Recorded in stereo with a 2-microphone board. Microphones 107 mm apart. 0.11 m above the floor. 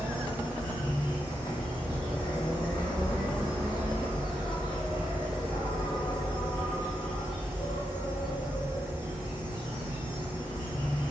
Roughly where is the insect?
Left.